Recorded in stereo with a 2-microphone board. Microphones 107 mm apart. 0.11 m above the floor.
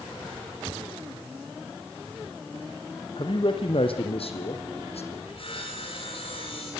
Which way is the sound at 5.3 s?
55° left (ahead or behind).